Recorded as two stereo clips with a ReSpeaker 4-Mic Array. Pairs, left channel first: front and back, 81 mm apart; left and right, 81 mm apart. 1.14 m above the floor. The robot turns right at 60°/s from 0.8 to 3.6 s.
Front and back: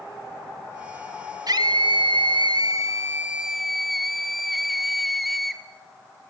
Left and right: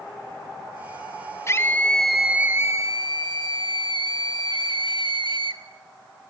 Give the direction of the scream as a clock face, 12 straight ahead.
7 o'clock.